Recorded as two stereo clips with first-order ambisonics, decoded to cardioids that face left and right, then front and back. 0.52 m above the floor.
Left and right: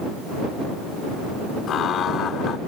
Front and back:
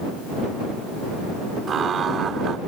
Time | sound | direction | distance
1.7 | laughter | 130° left | ?